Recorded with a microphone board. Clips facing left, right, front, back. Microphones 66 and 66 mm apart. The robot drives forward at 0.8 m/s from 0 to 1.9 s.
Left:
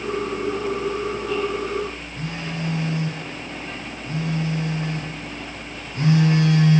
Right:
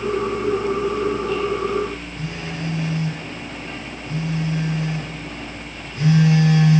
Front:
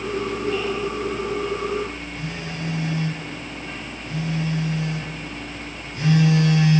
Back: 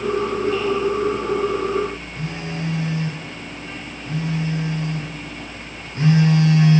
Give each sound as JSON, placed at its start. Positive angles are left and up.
{"t": 2.2, "sound": "a phone buzzing", "azimuth_deg": 130, "distance_m": 1.7}